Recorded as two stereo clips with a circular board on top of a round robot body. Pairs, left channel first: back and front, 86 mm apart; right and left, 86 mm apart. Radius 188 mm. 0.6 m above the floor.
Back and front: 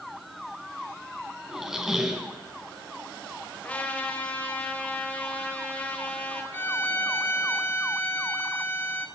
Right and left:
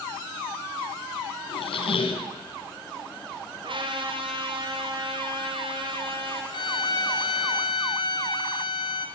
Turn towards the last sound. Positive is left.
turn(degrees=-115)